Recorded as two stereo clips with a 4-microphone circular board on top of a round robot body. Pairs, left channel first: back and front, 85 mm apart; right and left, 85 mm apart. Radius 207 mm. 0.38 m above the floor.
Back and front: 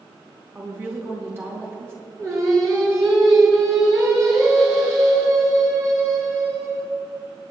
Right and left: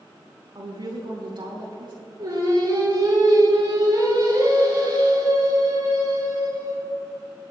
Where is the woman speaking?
60° left, 5 m.